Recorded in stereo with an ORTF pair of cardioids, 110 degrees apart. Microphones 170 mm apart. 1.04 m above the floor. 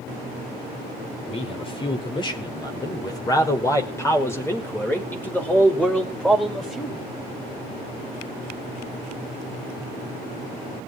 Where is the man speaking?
35° left, 5 m; by 7.1 s straight ahead, 5.5 m.